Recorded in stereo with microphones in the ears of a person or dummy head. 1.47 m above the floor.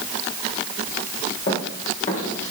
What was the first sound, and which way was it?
Running footsteps, 35° left (ahead or behind).